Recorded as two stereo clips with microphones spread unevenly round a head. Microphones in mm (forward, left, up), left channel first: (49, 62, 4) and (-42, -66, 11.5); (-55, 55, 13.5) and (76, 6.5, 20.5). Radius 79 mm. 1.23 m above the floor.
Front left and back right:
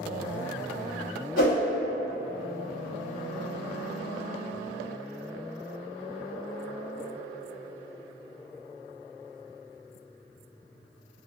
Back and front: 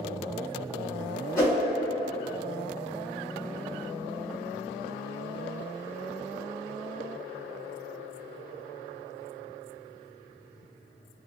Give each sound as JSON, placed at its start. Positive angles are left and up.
{"t": 1.4, "sound": "a whoosh", "azimuth_deg": 90, "distance_m": 1.2}